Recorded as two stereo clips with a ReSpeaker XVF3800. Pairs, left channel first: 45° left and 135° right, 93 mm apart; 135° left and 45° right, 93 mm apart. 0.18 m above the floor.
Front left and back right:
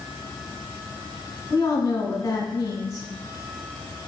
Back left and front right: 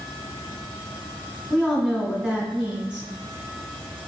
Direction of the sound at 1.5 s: 35° left.